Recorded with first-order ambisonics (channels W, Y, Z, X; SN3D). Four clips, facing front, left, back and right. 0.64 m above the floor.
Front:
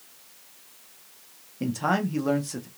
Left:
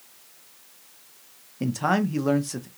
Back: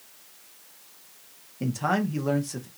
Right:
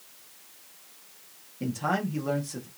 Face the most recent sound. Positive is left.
turn(degrees=80)